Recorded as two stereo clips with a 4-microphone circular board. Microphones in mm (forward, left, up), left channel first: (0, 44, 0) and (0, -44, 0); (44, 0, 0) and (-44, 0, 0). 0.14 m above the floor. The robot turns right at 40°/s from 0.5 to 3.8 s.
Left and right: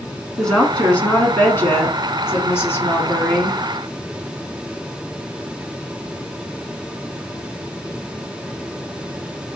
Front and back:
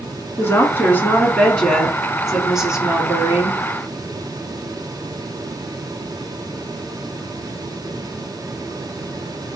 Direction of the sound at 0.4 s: 15° left.